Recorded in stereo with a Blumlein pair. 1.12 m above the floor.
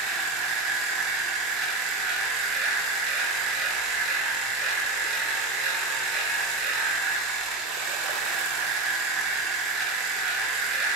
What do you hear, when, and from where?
0.0 s a machine running: 25° right, 0.9 m